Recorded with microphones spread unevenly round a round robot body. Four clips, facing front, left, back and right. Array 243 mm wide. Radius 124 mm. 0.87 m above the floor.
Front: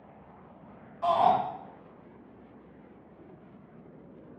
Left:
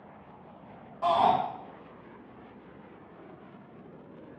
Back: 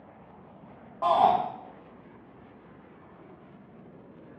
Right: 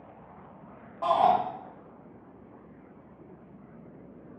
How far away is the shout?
About 1.1 m.